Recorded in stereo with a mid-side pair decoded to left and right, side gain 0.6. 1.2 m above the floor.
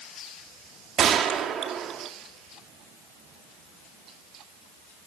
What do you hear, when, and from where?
1.0 s a gunshot: 45° right, 2.5 m